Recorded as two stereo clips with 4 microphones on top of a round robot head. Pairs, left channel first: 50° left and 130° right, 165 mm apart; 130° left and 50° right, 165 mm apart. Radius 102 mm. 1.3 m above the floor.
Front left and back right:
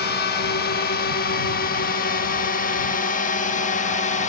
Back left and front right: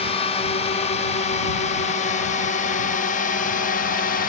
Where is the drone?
75° left; by 4.3 s 95° left.